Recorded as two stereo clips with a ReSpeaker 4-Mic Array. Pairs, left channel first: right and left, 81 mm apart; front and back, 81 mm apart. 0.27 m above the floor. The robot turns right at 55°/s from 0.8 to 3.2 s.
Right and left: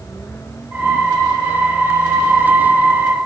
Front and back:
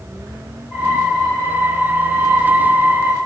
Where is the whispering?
No whispering in this recording.